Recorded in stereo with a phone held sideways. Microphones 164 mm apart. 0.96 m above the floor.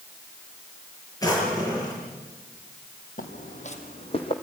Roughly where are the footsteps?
Left.